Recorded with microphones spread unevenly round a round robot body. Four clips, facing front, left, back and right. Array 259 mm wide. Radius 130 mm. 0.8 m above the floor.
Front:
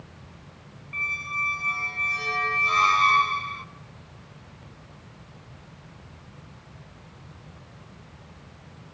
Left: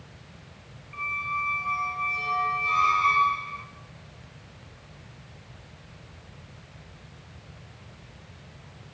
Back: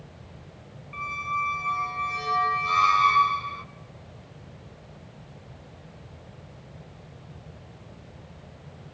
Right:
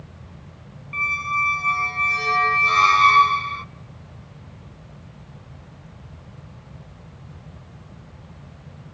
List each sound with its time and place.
0.9 s a squeak: 95° right, 0.8 m